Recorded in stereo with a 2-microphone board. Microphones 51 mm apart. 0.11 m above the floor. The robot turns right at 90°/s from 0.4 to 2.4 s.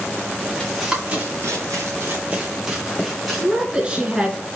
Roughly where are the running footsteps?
Centre.